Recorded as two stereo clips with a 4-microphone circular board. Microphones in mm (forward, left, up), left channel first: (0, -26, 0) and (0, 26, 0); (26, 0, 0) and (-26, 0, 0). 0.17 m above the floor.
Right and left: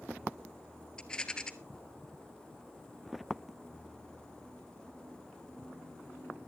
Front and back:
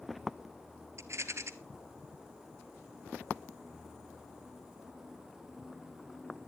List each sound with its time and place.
1.0 s a rattle: 165° right, 1.0 m